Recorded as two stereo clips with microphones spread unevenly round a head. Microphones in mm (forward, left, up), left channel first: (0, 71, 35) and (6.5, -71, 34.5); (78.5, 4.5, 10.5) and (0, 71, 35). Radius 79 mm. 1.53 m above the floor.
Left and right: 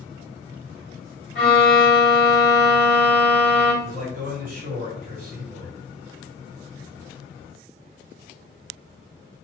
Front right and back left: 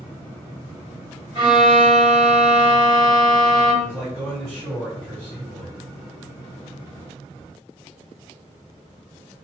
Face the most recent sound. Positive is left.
turn(degrees=-120)